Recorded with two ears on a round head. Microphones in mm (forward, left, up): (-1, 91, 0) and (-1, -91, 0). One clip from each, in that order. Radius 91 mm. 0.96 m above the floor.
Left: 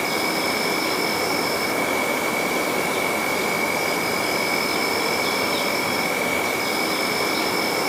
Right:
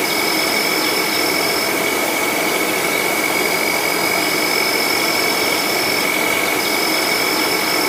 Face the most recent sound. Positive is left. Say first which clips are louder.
# right 5 dB
turn(degrees=-60)  # may be behind; listen again after turning